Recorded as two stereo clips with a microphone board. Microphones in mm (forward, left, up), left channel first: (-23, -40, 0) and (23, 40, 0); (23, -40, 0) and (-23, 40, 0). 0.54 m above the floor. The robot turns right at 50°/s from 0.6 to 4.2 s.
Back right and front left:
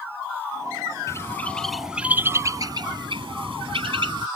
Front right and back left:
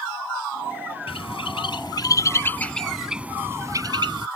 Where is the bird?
65° right; by 4.3 s 95° left.